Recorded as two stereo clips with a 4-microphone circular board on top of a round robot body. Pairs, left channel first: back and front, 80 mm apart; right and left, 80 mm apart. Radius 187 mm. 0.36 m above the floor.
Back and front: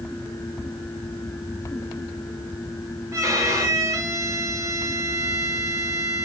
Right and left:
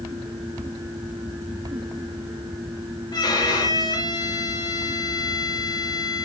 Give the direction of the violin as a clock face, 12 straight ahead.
2 o'clock.